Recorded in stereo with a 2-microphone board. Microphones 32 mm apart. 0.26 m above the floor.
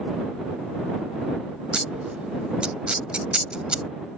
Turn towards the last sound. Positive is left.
turn(degrees=-35)  # may be behind; listen again after turning